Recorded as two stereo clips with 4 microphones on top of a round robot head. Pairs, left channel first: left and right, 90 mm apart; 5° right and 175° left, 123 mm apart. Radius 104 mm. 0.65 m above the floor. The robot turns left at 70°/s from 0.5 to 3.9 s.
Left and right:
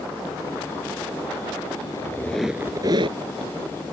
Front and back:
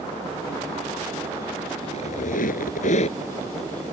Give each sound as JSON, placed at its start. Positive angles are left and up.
{"t": 1.8, "sound": "a squeak", "azimuth_deg": 40}